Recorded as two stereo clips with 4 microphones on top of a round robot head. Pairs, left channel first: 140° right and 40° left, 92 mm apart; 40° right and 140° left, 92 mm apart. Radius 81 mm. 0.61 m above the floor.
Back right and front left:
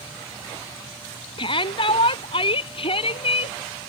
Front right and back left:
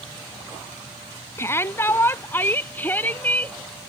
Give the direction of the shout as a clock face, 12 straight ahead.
3 o'clock.